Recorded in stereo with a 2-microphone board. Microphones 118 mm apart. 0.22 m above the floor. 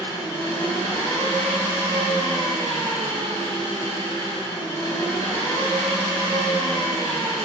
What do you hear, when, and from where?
0.0 s an engine running: 30° left (ahead or behind), 1.8 m